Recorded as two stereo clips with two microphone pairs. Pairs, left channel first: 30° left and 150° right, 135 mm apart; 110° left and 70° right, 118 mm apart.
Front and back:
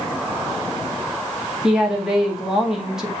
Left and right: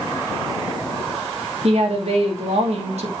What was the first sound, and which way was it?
A woman speaking, 65° right.